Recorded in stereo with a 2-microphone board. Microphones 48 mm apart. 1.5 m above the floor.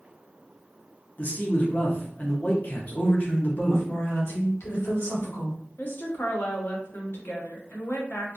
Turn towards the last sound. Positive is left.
turn(degrees=50)  # may be behind; listen again after turning